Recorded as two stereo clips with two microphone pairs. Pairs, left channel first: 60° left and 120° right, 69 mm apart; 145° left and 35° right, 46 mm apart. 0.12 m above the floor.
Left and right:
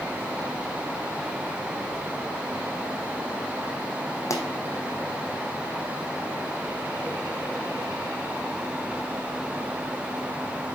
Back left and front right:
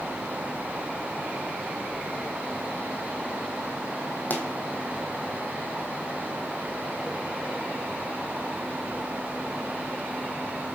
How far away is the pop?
About 1.1 m.